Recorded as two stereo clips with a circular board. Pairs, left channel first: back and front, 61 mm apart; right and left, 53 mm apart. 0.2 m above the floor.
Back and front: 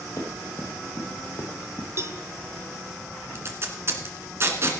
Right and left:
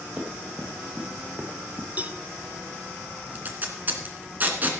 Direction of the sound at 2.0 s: 35° left.